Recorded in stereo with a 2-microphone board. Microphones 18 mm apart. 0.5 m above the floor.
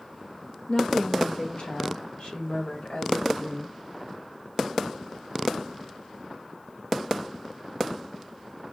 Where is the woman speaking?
50° left (ahead or behind), 1.3 m; by 3.8 s 55° left (ahead or behind), 3 m.